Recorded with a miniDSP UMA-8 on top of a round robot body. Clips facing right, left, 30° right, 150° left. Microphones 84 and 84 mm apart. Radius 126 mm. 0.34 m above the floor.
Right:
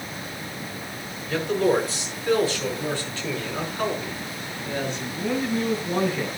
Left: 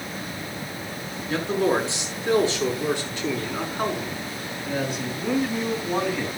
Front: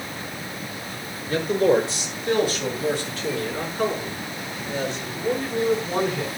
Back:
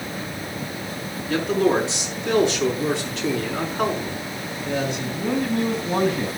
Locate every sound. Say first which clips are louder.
1.3 s a man speaking: right 1 dB, front 1 dB; 155° left, 6.5 m; by 6.3 s straight behind, 5 m